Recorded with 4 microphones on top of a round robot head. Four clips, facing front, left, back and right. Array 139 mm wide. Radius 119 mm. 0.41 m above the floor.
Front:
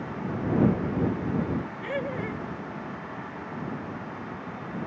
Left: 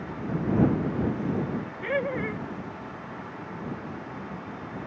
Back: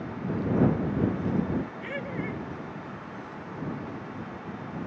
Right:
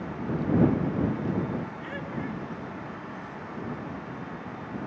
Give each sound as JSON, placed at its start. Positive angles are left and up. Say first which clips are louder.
{"t": 1.8, "sound": "laughter", "louder": "left 6 dB, front 3 dB", "azimuth_deg": 70}